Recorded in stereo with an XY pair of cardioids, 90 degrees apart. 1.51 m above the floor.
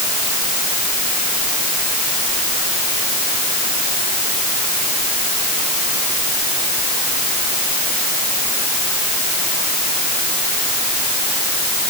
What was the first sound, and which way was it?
Only background noise.